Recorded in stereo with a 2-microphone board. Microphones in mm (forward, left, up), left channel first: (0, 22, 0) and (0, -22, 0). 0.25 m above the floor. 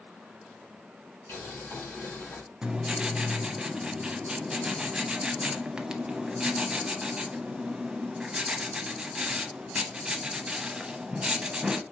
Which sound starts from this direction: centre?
Writing, at 2.6 s.